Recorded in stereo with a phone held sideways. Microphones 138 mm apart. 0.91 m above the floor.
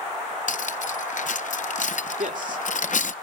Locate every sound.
0.5 s cutlery clinking: 65° left (ahead or behind), 0.6 m
2.2 s a man speaking: 75° right (ahead or behind), 2 m